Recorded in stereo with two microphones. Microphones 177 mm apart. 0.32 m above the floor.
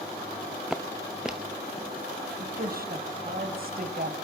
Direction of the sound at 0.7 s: 5° right (ahead or behind).